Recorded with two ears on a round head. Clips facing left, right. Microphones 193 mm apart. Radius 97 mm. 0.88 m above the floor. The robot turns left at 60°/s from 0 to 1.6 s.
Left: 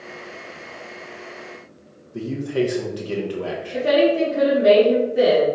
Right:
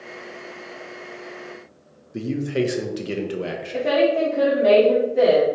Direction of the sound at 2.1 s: 25° right (ahead or behind).